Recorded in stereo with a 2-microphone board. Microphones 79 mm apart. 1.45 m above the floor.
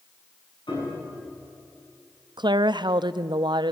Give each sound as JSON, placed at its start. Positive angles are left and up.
{"t": 0.7, "sound": "a piano", "side_deg": 75, "distance_m": 8.0}
{"t": 2.4, "sound": "a woman speaking", "side_deg": -70, "distance_m": 0.6}